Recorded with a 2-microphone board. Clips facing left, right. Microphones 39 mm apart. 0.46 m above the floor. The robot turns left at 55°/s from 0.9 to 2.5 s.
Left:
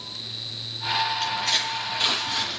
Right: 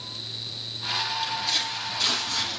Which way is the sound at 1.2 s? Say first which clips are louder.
Left 3 dB; 70° left (ahead or behind).